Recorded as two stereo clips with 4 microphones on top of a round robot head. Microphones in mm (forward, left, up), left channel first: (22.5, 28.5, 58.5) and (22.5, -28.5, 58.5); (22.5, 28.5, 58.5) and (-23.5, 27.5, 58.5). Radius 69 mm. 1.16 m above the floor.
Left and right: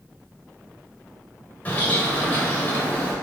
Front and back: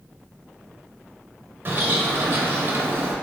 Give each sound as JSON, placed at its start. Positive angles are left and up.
{"t": 1.6, "sound": "a bird", "azimuth_deg": 150, "distance_m": 1.1}